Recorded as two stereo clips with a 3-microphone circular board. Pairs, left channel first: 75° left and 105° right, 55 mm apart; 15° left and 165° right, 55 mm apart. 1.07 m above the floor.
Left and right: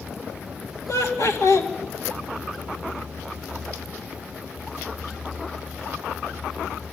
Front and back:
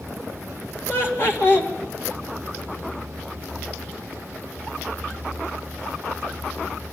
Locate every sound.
0.9 s laughter: 60° left, 2.5 m